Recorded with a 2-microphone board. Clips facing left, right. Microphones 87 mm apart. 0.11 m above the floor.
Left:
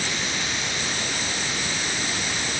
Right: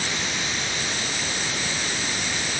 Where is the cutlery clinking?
I don't hear cutlery clinking.